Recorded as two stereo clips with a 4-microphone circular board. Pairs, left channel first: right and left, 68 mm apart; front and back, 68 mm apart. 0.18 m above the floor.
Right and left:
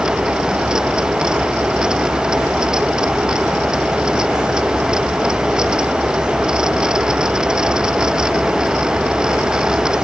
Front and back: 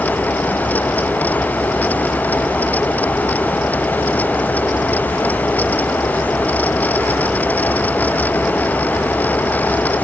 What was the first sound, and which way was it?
Only background noise.